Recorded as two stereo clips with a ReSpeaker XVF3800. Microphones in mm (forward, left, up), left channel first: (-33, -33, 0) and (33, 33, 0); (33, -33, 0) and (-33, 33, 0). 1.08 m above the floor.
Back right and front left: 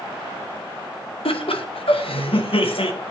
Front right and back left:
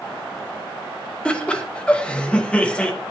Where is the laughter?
125° right, 0.9 m.